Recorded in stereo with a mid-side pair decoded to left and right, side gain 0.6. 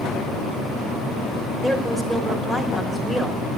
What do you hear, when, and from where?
1.6 s a woman speaking: 15° right, 3.5 m